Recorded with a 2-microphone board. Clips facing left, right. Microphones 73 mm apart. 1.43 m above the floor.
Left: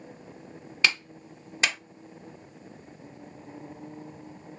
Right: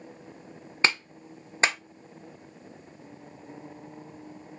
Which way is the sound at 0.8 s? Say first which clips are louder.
Even; 30° right (ahead or behind).